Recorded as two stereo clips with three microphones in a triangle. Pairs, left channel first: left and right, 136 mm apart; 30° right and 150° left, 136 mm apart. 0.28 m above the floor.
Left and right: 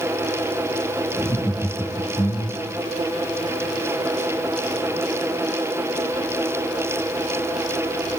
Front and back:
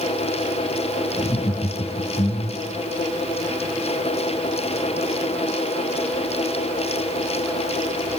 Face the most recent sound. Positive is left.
turn(degrees=35)